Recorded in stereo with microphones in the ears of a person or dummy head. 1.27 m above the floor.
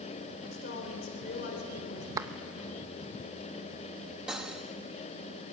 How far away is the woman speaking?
About 4 m.